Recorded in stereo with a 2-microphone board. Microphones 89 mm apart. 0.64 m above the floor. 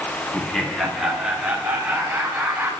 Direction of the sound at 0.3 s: 10° left (ahead or behind).